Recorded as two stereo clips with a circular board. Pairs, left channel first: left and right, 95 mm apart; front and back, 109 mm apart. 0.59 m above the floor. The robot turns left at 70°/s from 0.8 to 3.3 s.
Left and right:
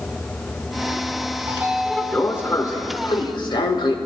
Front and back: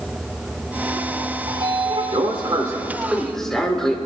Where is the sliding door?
145° right, 1.5 m; by 4.0 s 85° left, 1.5 m.